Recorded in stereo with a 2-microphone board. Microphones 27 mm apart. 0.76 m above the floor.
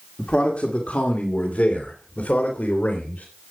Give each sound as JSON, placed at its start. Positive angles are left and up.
{"t": 0.2, "sound": "a man speaking", "side_deg": 45, "distance_m": 2.0}